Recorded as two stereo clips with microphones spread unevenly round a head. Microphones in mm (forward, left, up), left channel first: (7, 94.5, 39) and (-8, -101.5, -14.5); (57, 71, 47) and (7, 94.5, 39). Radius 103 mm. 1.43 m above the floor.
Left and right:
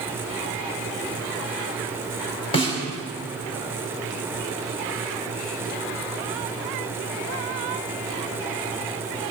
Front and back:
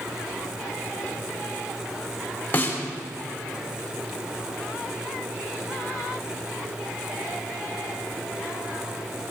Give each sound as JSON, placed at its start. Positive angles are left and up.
{"t": 2.5, "sound": "a snare drum", "azimuth_deg": 25, "distance_m": 3.5}